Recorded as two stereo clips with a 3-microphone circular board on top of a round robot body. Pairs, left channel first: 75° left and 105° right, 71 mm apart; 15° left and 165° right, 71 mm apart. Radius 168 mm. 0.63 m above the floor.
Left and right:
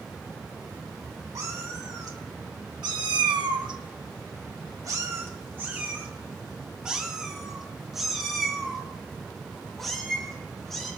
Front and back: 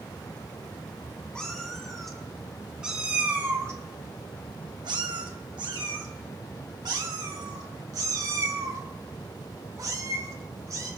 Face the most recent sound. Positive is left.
turn(degrees=160)